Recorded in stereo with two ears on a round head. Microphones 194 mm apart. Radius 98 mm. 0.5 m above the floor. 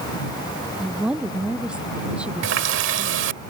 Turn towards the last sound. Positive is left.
turn(degrees=-60)  # may be behind; listen again after turning